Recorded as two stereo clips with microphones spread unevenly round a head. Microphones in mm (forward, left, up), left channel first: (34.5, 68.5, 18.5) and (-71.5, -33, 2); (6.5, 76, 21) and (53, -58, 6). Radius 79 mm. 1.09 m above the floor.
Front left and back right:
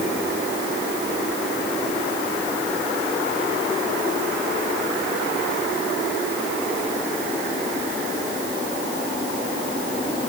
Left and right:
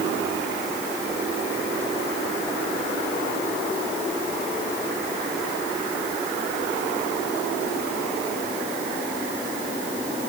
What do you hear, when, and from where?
Only background noise.